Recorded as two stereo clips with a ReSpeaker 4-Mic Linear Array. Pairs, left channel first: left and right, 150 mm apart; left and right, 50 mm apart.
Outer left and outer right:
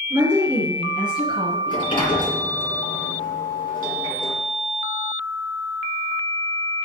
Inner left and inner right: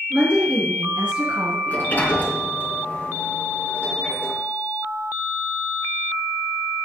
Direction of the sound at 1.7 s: 35° left (ahead or behind).